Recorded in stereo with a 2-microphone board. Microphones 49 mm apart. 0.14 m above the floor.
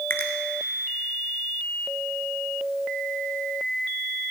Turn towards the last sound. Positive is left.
turn(degrees=50)  # may be behind; listen again after turning